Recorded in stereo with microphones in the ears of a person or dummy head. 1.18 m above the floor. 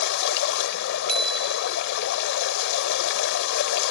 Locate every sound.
0.0 s running water: 60° left (ahead or behind)
1.1 s a bicycle bell: 60° right (ahead or behind)